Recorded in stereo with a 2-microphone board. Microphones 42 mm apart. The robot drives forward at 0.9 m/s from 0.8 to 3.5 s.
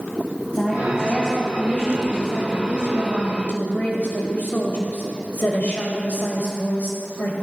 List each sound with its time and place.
0.5 s a woman speaking: 35° left (ahead or behind), 2.5 m; by 7.3 s 50° left (ahead or behind), 1.8 m